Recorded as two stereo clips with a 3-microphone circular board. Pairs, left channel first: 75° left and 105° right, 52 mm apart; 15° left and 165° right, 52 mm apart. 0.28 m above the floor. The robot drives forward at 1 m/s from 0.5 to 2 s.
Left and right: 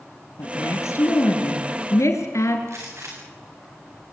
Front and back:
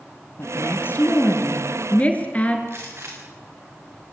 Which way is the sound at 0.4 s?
60° left.